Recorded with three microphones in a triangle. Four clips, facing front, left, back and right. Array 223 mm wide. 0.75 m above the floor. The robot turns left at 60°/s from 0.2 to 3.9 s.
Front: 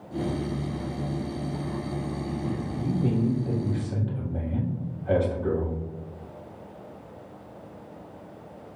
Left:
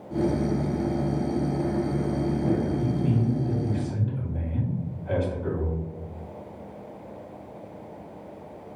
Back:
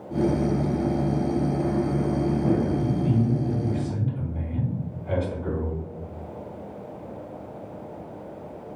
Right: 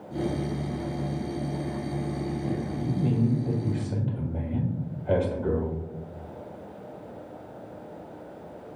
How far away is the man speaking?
About 1.5 m.